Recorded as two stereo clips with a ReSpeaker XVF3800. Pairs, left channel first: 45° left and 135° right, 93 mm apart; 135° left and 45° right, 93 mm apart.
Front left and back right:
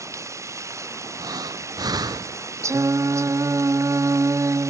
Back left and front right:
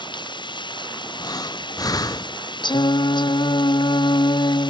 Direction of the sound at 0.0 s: 170° left.